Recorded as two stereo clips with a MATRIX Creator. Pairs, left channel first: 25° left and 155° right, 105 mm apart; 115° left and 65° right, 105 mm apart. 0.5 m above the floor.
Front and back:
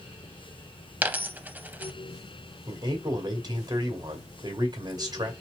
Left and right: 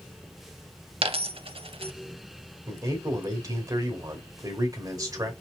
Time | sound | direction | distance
1.0 | a dropped coin | 85° right | 0.5 m
2.7 | a man speaking | 115° right | 1.9 m